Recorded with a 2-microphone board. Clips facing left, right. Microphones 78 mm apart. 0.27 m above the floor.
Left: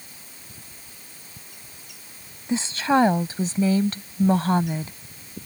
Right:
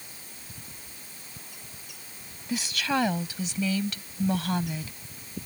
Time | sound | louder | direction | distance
2.5 | a woman speaking | left 7 dB | 30° left (ahead or behind) | ?